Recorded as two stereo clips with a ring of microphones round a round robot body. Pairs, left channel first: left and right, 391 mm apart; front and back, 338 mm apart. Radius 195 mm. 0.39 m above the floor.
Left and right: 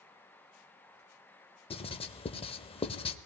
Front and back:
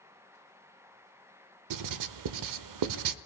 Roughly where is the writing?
Behind.